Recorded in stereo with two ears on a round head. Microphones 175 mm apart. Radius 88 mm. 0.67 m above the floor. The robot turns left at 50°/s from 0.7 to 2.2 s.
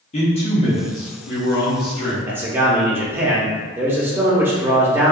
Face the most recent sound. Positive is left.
turn(degrees=-10)  # may be behind; listen again after turning